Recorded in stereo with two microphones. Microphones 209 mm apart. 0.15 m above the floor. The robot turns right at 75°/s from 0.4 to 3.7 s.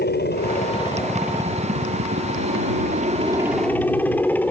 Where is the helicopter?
120° left; by 4.5 s 10° left.